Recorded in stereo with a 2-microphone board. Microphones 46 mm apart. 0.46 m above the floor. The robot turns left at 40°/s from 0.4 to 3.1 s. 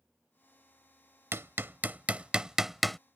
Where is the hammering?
65° right (ahead or behind); by 3.0 s 5° left (ahead or behind).